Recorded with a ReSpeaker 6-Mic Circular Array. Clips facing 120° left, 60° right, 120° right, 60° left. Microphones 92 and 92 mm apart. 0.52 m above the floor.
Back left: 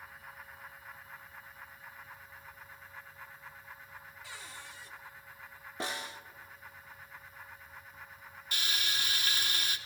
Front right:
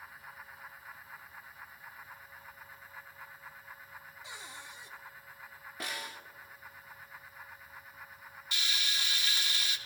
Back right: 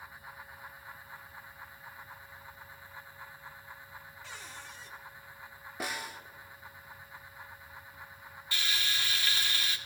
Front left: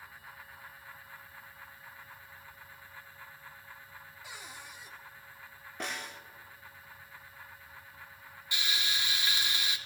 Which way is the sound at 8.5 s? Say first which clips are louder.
Back left 1 dB, even; 125° left.